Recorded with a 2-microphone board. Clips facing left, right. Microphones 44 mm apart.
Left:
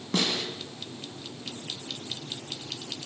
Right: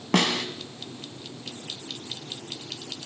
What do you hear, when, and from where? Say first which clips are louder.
0.1 s a snare drum: right 5 dB; 70° right (ahead or behind), 1.3 m